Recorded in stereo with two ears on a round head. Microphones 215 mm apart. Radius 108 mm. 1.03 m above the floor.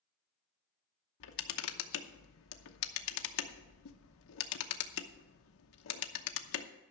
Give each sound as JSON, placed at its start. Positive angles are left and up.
{"t": 1.2, "sound": "a camera shutter", "side_deg": 60, "distance_m": 0.9}